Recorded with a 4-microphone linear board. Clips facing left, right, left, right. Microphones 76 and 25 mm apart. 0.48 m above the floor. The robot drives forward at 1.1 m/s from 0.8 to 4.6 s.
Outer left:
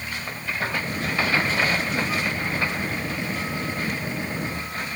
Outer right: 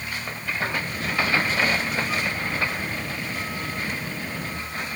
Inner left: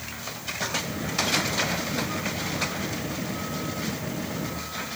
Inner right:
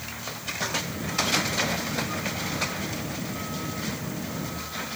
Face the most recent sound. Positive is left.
No sound to turn to.